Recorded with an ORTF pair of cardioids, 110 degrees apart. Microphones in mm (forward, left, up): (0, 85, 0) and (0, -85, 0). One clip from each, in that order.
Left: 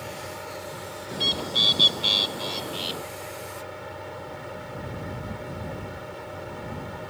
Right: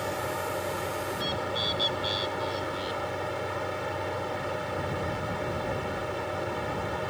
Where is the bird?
60° left.